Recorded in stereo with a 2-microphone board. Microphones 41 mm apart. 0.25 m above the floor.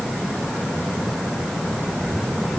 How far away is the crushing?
I don't hear crushing.